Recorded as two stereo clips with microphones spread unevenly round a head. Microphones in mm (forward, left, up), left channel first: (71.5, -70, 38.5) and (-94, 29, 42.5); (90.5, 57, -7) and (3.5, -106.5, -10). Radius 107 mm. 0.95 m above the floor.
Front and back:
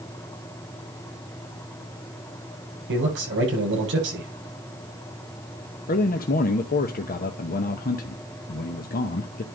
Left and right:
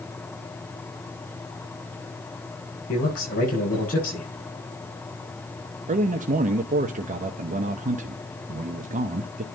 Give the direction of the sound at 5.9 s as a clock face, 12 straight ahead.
2 o'clock.